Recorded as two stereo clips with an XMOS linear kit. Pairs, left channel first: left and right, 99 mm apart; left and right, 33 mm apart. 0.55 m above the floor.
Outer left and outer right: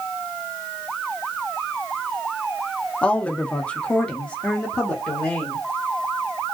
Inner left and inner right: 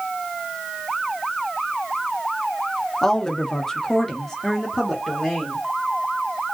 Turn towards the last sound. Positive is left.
turn(degrees=10)  # may be behind; listen again after turning